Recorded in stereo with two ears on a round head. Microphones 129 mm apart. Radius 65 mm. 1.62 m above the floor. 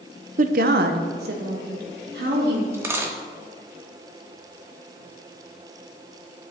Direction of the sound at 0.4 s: 50° right (ahead or behind).